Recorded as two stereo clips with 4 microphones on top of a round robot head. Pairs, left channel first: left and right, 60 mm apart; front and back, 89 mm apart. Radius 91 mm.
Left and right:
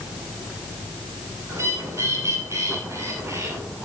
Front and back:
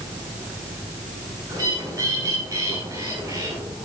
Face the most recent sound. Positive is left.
turn(degrees=-130)